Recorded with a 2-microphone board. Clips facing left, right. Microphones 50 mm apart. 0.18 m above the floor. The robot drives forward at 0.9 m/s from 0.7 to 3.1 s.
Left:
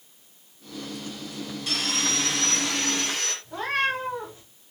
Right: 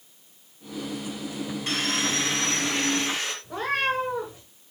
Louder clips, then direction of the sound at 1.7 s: Right 1 dB; 35° right (ahead or behind).